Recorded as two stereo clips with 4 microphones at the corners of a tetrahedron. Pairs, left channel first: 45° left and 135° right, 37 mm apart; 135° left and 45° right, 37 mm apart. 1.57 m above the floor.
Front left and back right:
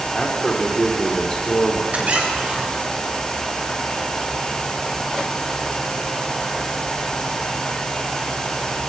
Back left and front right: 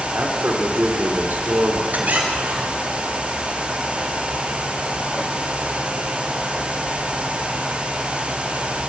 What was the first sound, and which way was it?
A man speaking, 25° right.